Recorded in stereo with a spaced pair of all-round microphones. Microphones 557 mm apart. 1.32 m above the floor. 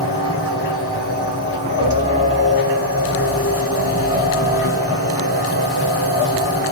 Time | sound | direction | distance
0.0 | a machine running | 25° left (ahead or behind) | 5 m